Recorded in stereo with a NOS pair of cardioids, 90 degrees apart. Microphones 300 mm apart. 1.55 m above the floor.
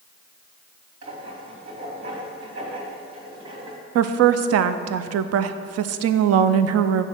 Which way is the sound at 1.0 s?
60° right.